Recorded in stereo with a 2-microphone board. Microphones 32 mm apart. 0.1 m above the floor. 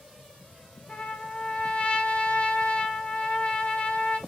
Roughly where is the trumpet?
Left.